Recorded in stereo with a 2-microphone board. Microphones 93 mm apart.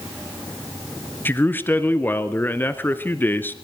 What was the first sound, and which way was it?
A man speaking, 20° left (ahead or behind).